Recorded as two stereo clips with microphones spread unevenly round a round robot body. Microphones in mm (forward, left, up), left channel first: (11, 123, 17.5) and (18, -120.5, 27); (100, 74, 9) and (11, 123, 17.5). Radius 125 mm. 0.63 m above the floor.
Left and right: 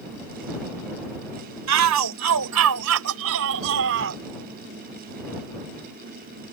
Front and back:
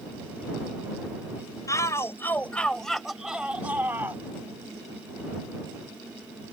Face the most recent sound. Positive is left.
turn(degrees=-130)